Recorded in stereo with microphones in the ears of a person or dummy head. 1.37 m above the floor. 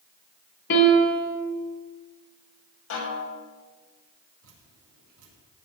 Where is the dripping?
80° right, 6 m.